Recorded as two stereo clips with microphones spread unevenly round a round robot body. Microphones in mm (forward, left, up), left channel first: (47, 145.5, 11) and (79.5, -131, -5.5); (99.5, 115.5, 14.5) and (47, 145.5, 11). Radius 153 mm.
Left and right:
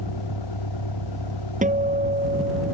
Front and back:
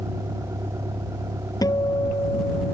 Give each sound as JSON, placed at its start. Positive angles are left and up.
{"t": 0.0, "sound": "a vehicle", "azimuth_deg": 115}
{"t": 1.6, "sound": "a guitar", "azimuth_deg": -20}